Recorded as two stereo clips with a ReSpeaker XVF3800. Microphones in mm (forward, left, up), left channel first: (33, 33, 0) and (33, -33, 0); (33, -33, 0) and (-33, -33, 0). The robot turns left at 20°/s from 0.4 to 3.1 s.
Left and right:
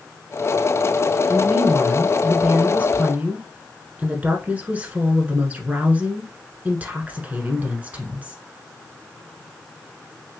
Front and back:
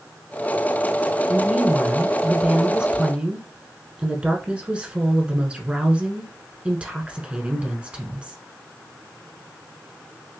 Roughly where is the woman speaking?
Right.